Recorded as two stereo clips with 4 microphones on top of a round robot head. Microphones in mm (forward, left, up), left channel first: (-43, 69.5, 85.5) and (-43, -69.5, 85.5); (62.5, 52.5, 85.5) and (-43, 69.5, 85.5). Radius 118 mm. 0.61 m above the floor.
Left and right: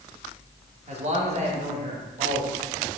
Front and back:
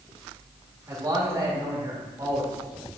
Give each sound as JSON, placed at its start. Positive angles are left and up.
{"t": 0.9, "sound": "a man speaking", "azimuth_deg": -125, "distance_m": 1.9}